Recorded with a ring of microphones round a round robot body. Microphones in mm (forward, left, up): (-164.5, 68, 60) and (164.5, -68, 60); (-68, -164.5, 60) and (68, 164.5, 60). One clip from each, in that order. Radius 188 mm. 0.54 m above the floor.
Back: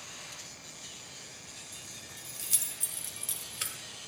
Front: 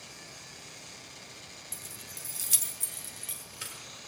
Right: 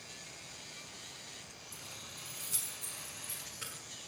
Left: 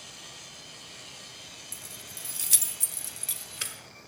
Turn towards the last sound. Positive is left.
turn(degrees=85)